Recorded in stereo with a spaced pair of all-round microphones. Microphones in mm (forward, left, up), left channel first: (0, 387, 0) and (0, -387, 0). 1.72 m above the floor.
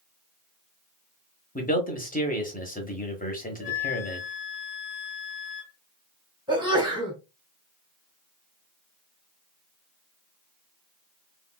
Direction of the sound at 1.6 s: 10° left (ahead or behind).